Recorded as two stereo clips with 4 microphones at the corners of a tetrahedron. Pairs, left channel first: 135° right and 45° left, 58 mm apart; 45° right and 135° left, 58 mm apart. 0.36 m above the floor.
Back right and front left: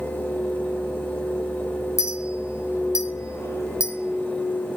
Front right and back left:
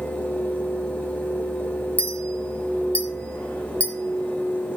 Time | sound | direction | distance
2.0 | a clink | 110° right | 2.5 m